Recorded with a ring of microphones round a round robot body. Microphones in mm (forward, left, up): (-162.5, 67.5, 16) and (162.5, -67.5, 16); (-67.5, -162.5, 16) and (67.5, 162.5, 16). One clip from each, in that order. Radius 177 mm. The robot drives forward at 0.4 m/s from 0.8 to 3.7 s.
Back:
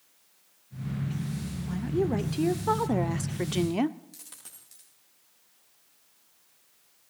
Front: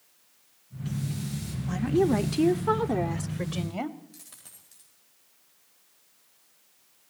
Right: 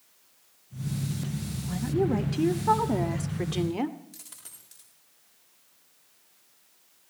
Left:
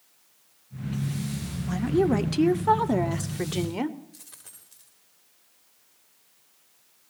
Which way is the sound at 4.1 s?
170° right.